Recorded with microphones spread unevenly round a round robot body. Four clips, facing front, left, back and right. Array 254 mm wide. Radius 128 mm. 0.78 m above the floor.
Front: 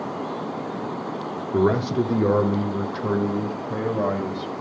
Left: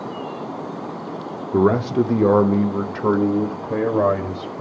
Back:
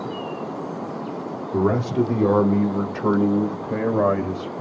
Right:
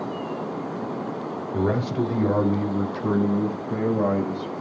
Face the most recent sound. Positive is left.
turn(degrees=110)